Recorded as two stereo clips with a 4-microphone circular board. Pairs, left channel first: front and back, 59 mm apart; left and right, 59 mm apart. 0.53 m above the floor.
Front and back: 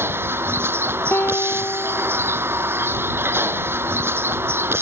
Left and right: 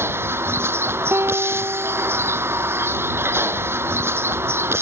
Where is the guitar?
50° right.